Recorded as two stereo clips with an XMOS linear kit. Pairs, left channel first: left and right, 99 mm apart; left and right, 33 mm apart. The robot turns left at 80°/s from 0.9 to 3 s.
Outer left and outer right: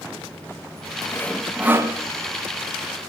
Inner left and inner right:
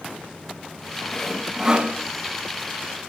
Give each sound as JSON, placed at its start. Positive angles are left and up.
{"t": 1.1, "sound": "sawing", "azimuth_deg": 25, "distance_m": 1.3}